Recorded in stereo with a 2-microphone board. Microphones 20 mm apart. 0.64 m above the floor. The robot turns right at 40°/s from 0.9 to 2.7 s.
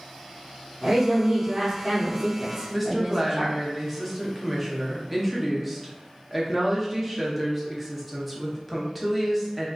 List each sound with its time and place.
0.8 s a woman speaking: 115° right, 1.4 m; by 3.6 s 45° right, 1.4 m
2.7 s a woman speaking: centre (ahead or behind), 0.7 m